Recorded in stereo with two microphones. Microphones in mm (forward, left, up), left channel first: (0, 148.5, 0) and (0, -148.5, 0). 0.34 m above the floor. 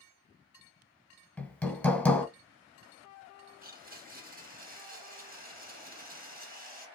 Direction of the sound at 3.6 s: 30° right (ahead or behind).